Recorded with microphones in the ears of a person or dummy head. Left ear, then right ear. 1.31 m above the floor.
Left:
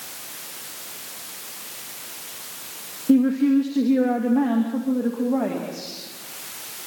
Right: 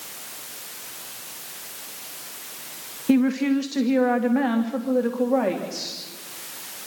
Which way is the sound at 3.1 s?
60° right (ahead or behind).